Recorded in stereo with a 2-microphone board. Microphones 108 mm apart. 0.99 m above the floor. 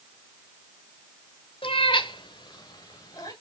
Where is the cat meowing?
60° left (ahead or behind), 1.2 m; by 3.3 s 35° left (ahead or behind), 2.5 m.